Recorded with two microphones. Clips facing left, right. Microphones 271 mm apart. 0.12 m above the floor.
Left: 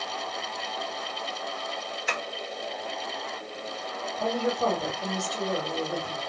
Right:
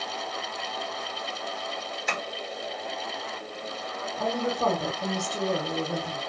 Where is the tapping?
50° right (ahead or behind), 2 m.